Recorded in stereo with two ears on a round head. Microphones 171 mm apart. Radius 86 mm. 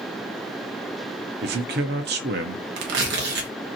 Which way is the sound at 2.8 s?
65° right (ahead or behind).